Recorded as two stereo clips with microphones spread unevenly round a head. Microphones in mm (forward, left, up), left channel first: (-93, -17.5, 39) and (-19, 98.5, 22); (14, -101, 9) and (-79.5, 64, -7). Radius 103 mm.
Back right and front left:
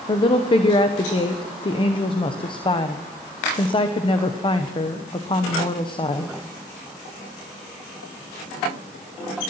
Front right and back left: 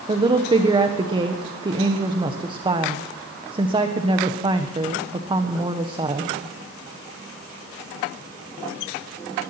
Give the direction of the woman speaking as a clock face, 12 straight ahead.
6 o'clock.